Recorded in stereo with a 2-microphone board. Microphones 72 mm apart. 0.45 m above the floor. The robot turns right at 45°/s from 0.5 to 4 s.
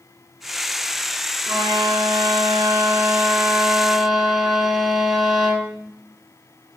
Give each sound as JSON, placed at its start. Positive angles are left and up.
{"t": 1.5, "sound": "a violin", "azimuth_deg": -115, "distance_m": 1.7}